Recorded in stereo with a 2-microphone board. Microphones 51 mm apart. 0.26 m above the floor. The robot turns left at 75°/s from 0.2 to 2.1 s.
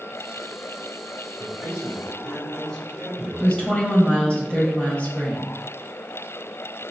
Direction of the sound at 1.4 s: 155° right.